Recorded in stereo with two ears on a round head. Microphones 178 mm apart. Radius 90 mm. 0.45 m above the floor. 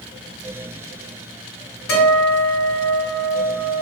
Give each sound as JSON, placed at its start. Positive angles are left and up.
{"t": 1.9, "sound": "a guitar", "side_deg": 75, "distance_m": 1.5}